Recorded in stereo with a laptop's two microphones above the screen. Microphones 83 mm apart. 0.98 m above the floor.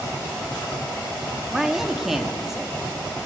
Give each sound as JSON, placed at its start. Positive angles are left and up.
{"t": 1.5, "sound": "a man speaking", "side_deg": -5, "distance_m": 2.0}